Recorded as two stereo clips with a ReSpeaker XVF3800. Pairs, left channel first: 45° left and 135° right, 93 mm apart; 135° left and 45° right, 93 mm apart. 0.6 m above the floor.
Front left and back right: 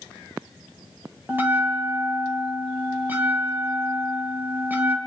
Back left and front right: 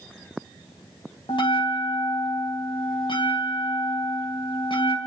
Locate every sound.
1.3 s a bell: 155° left, 2.5 m